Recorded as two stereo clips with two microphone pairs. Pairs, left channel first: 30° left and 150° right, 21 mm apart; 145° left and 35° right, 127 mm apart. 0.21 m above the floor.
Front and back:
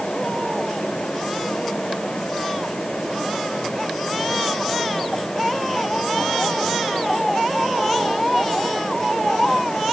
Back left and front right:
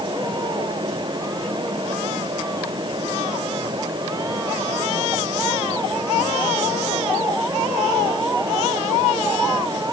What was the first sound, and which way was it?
Only background noise.